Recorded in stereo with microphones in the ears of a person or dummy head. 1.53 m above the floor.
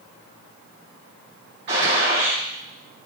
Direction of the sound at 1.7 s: 60° right (ahead or behind).